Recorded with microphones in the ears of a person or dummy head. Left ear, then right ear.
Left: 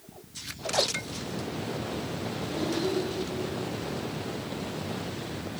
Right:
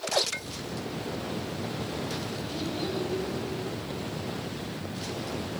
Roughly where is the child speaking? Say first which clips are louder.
Left 5 dB; centre.